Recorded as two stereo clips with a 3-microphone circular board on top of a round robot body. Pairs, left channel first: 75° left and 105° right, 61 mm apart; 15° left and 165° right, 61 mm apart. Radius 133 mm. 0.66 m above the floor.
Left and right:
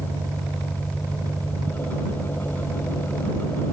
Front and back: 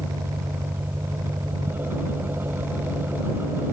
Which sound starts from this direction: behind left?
An engine running, at 0.0 s.